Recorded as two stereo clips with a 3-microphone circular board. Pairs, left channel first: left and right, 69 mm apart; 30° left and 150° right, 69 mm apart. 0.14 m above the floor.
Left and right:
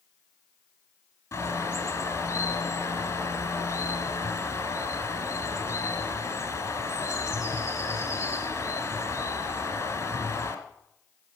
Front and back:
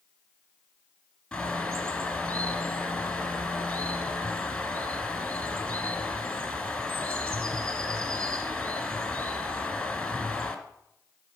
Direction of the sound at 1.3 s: 105° left.